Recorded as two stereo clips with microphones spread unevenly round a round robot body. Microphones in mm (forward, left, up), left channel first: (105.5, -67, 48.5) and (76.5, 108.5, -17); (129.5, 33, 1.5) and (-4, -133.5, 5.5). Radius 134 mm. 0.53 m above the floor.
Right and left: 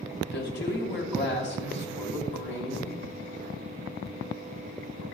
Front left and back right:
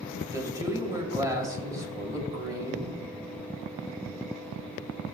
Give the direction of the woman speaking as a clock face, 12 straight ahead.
2 o'clock.